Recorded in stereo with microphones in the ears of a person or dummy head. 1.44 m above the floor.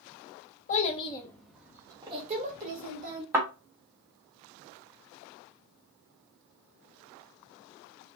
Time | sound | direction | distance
0.7 | a child speaking | 50° left (ahead or behind) | 1.0 m
3.3 | a thud | 10° right (ahead or behind) | 1.2 m